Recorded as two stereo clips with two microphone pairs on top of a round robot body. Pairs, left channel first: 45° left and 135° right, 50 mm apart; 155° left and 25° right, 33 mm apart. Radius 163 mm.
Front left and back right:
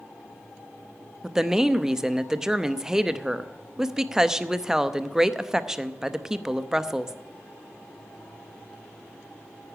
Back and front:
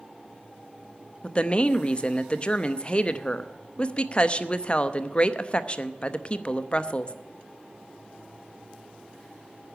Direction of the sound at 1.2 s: 175° left.